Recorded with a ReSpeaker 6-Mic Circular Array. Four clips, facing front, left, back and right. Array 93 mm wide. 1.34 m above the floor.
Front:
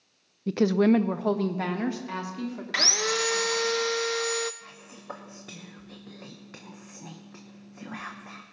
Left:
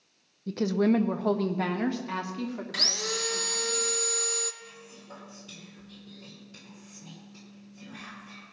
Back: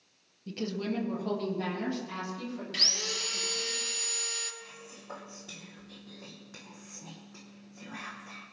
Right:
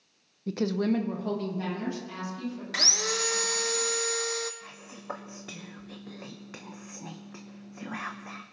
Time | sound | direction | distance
0.5 | a woman speaking | 20° right | 0.6 m
2.7 | sawing | 10° right | 0.6 m
4.6 | whispering | 70° right | 1.0 m